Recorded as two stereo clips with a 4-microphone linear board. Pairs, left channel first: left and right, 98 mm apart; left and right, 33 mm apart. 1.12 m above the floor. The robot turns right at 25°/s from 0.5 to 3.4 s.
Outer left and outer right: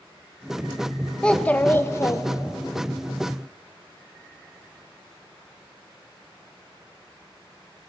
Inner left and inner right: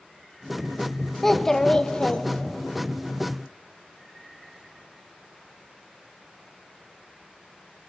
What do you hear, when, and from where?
1.2 s a child speaking: 10° left, 0.5 m; by 2.8 s 50° left, 0.5 m